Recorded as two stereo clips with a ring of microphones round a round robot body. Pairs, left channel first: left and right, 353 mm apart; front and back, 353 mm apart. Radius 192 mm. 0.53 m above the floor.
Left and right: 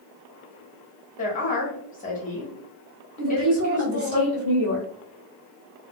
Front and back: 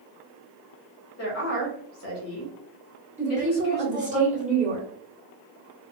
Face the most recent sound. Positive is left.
turn(degrees=-120)